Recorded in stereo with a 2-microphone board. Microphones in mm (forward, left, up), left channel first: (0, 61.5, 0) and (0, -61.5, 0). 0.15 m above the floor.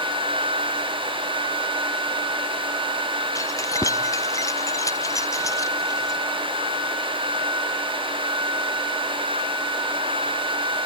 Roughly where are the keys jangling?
Left.